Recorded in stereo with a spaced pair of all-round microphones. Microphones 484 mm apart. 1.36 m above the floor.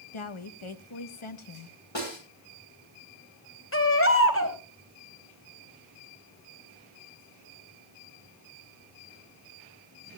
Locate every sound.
0.1 s a woman speaking: 75° left (ahead or behind), 1.2 m
1.9 s a snare drum: 65° left (ahead or behind), 5.5 m
3.7 s a baby crying: 25° left (ahead or behind), 2.5 m